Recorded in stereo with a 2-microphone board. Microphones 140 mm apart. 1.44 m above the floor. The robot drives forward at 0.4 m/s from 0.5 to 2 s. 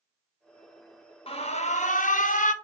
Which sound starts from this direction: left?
An alarm, at 1.3 s.